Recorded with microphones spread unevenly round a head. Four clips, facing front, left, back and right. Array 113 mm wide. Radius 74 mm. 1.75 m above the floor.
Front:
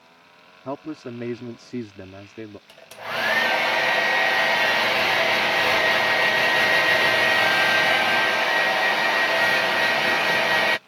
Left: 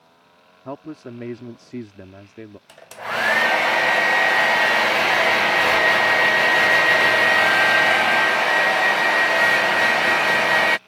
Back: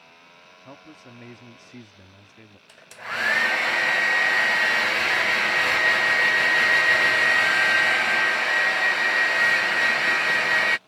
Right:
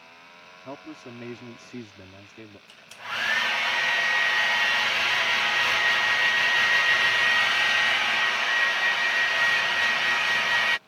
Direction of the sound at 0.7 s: 20° left.